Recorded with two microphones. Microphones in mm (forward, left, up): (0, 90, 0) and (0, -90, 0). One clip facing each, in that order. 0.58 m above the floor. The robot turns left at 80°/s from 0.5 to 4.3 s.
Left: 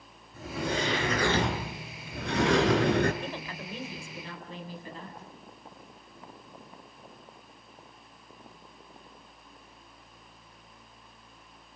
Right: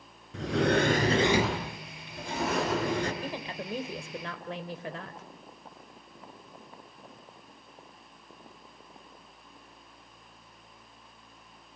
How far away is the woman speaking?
About 2.5 m.